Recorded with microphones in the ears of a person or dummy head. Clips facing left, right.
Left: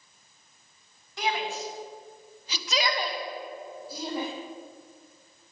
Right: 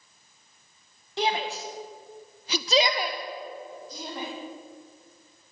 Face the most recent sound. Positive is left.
turn(degrees=10)  # may be behind; listen again after turning